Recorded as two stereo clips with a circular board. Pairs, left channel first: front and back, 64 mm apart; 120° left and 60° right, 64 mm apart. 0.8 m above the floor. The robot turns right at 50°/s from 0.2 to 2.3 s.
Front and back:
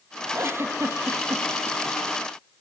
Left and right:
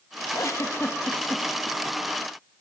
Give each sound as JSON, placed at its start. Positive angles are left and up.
{"t": 0.3, "sound": "a giggle", "azimuth_deg": 135, "distance_m": 0.6}